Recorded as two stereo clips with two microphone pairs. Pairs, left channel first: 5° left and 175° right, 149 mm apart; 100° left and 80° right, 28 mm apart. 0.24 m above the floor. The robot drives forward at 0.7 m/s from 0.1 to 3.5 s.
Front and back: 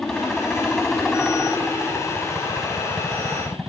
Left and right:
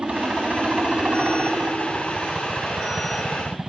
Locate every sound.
0.0 s a helicopter: 80° right; by 3.7 s 85° right